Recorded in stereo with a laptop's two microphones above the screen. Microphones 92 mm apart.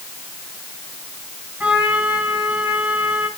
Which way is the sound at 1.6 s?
15° right (ahead or behind).